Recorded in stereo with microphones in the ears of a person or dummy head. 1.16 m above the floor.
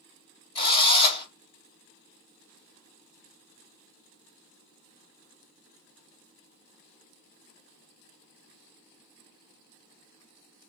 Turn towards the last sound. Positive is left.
turn(degrees=25)  # may be behind; listen again after turning